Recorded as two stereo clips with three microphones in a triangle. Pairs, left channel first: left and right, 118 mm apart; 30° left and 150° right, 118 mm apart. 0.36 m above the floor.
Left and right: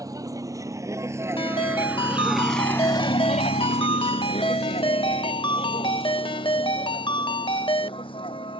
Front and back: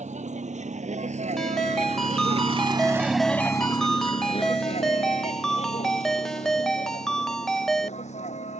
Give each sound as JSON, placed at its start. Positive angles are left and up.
{"t": 0.0, "sound": "a vehicle", "azimuth_deg": -150}
{"t": 1.4, "sound": "a ringtone", "azimuth_deg": 115}